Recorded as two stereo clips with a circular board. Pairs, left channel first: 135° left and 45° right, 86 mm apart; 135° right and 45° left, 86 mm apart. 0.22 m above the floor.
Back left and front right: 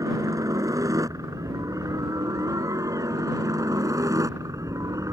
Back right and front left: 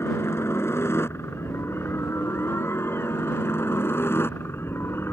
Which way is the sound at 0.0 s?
85° right.